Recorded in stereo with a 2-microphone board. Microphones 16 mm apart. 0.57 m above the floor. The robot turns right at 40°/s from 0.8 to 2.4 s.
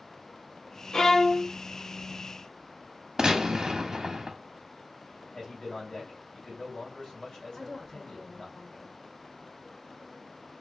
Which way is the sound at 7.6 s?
30° left (ahead or behind).